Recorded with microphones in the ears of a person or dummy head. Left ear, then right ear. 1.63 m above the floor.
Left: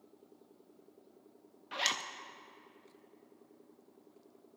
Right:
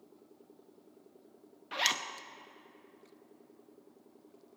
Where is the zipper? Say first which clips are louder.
Right 3 dB; 5° right (ahead or behind), 0.5 m.